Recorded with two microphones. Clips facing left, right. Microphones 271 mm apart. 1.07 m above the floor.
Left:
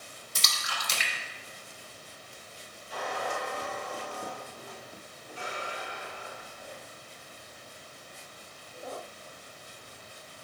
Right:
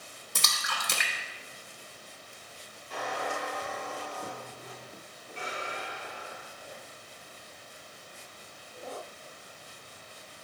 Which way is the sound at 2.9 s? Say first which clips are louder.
Even; 80° right.